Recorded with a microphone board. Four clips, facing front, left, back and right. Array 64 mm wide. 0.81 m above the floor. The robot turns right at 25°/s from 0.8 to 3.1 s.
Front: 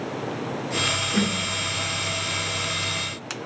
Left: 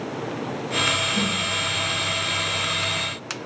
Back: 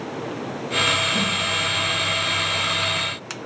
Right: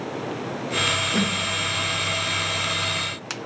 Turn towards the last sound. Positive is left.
turn(degrees=-10)